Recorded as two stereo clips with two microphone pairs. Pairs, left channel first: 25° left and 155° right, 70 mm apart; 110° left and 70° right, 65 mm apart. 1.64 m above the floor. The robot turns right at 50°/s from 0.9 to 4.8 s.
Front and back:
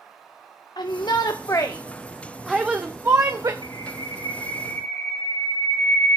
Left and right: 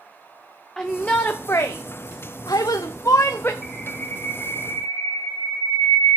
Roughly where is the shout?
Ahead left.